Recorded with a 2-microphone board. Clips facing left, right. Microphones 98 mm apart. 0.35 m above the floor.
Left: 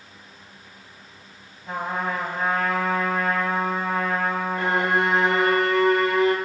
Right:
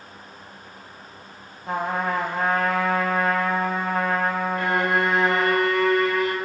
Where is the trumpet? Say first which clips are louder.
Right 2 dB; 70° right (ahead or behind), 0.5 m.